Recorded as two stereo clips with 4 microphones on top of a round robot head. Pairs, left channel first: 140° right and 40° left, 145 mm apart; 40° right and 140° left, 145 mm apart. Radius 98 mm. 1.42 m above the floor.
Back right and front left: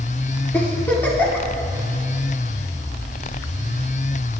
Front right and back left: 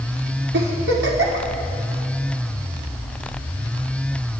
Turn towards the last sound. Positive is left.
turn(degrees=140)